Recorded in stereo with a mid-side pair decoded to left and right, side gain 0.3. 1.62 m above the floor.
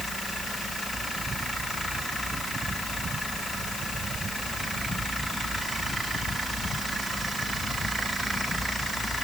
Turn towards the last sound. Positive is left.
No sound to turn to.